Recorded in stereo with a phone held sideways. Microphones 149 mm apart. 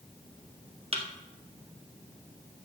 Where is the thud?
40° right (ahead or behind), 1.6 m.